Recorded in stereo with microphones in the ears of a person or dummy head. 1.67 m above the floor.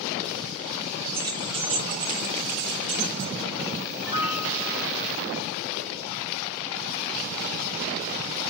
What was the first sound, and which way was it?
Keys jangling, 15° right (ahead or behind).